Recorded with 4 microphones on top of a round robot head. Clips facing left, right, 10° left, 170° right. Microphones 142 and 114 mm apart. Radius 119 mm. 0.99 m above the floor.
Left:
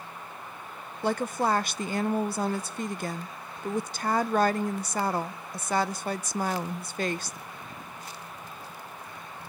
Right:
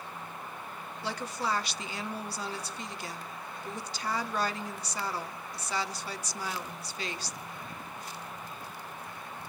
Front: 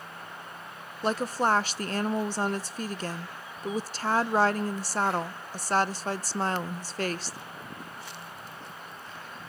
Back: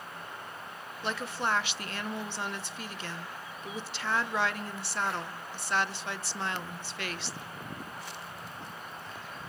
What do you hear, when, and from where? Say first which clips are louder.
1.0 s a woman speaking: left 8 dB, front 7 dB; 60° left, 0.7 m